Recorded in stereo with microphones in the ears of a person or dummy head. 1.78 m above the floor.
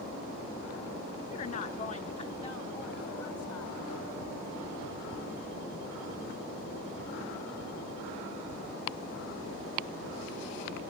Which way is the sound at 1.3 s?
45° left (ahead or behind).